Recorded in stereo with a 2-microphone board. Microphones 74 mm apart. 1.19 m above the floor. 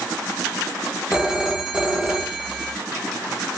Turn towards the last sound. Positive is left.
turn(degrees=-5)  # may be behind; listen again after turning